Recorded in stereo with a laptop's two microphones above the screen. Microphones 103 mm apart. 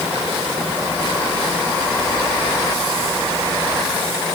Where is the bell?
I don't hear a bell.